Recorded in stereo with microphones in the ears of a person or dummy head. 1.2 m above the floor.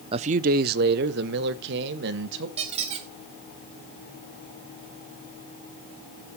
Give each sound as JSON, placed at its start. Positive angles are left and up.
{"t": 0.1, "sound": "a man speaking", "side_deg": -30, "distance_m": 0.5}
{"t": 2.6, "sound": "a squeak", "side_deg": -30, "distance_m": 1.3}